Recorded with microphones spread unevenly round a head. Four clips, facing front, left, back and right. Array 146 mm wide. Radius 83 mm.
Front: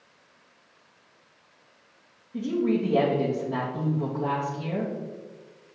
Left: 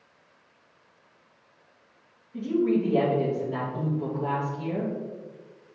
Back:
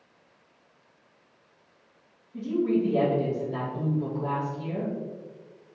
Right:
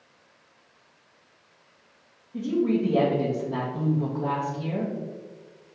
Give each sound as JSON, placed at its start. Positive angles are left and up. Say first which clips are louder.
{"t": 2.3, "sound": "a woman speaking", "louder": "even, even", "azimuth_deg": 0, "distance_m": 2.0}